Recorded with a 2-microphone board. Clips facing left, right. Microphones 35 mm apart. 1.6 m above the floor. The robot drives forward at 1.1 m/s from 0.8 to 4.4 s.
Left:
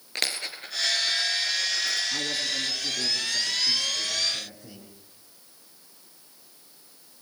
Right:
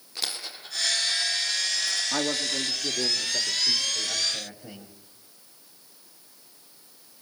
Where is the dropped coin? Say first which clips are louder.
Left 4 dB; 60° left (ahead or behind), 5 m; by 2.0 s 70° left (ahead or behind), 4.5 m.